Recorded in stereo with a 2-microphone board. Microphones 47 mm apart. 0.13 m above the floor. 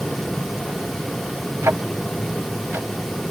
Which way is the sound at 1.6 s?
60° right (ahead or behind).